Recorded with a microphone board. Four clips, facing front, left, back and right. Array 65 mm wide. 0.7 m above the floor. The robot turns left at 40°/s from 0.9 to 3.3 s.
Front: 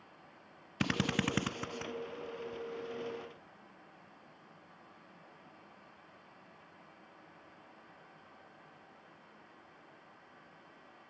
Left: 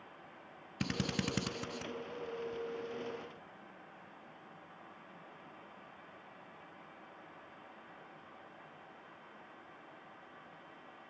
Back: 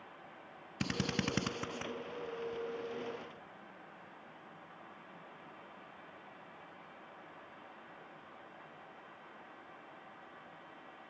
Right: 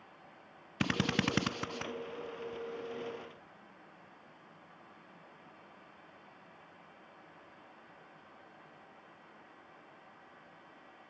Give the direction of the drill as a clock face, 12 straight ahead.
2 o'clock.